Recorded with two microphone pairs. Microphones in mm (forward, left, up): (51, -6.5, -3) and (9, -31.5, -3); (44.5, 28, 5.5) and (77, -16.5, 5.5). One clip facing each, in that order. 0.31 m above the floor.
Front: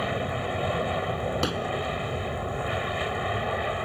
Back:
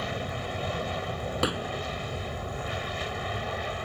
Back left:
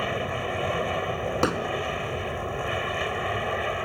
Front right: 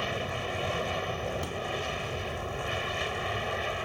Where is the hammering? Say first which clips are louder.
Front 1 dB, back left 10 dB; 130° left.